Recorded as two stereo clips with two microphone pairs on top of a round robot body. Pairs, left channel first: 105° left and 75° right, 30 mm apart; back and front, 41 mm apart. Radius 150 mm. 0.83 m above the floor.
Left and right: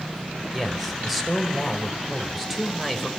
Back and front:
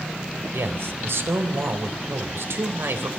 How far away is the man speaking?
About 4 m.